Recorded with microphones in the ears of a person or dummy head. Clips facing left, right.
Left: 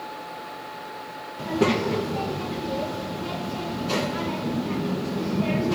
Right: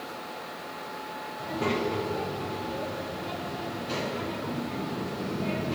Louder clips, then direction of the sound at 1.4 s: Left 6 dB; 75° left (ahead or behind).